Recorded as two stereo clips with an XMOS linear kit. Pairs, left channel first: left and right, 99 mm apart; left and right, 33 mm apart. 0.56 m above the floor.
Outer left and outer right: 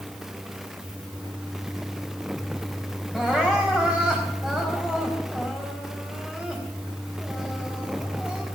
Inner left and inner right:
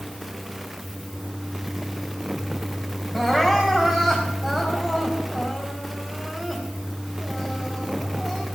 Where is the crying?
5° right (ahead or behind), 4 m.